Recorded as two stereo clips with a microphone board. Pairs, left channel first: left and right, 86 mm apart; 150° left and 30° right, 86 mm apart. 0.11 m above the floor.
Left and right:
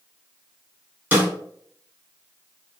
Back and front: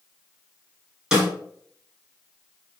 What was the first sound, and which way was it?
A snare drum, 95° right.